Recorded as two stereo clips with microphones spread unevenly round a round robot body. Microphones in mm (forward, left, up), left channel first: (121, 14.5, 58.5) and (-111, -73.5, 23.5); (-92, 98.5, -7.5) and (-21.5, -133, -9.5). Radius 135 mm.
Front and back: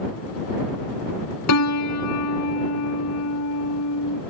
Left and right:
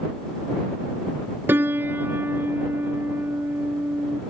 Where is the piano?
10° left.